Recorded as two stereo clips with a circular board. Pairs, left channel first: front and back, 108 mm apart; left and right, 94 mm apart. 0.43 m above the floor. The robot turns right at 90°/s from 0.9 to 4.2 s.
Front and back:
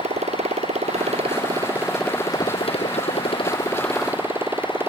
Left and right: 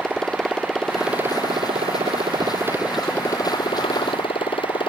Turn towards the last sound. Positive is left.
turn(degrees=110)